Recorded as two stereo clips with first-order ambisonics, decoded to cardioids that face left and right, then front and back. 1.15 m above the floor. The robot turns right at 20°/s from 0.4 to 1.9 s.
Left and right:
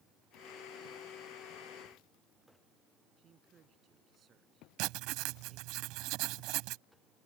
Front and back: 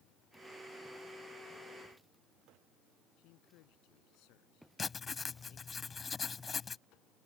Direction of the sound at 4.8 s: 70° right.